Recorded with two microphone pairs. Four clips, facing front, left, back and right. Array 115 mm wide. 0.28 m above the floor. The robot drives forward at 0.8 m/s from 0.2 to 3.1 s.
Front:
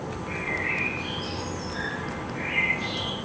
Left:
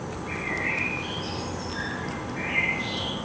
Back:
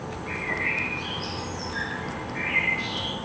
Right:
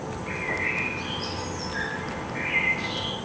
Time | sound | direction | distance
0.3 | a bird | 110° right | 8.5 m